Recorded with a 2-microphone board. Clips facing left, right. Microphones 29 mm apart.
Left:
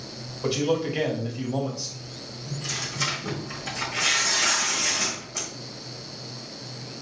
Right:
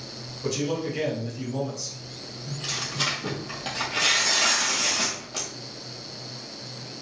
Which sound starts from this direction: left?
A man speaking, at 0.4 s.